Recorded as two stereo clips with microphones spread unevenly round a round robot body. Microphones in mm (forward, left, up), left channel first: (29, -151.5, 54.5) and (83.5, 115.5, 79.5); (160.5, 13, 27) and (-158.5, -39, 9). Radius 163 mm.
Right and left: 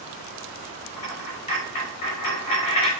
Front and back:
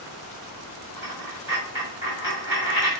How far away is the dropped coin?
About 6 m.